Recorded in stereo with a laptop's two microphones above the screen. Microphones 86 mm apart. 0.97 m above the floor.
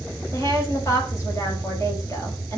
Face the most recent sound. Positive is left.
turn(degrees=35)  # may be behind; listen again after turning